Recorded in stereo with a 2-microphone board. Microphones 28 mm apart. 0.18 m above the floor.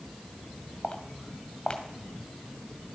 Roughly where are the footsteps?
Left.